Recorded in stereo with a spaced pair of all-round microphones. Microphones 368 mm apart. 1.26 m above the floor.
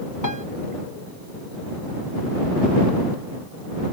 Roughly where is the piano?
Left.